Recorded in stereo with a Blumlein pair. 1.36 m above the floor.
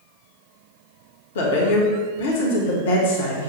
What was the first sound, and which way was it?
A woman speaking, 60° left.